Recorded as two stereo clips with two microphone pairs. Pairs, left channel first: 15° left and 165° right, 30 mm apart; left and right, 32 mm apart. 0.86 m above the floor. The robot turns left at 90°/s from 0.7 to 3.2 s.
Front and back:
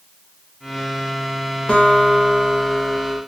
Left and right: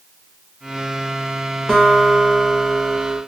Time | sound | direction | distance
1.7 | a guitar | 25° left | 1.0 m